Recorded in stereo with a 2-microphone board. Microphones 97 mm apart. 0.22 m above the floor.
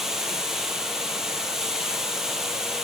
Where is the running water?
5° right (ahead or behind), 1.3 m.